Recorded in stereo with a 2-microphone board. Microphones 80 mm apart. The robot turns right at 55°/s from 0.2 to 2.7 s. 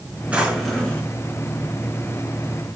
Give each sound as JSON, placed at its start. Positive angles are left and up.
{"t": 0.3, "sound": "a drawer", "azimuth_deg": -20, "distance_m": 3.5}